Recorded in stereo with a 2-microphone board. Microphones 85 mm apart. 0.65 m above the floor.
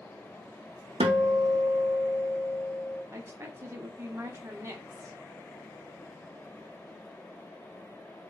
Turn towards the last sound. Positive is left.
turn(degrees=-30)  # may be behind; listen again after turning